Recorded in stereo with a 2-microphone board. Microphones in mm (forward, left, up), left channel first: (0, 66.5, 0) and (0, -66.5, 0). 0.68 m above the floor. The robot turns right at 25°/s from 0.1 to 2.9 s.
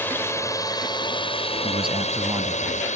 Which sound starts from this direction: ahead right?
A man speaking, at 1.6 s.